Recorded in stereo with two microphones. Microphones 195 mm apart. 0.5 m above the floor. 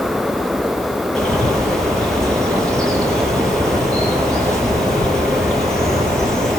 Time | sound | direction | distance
1.1 | a bird | 5° left (ahead or behind) | 8.5 m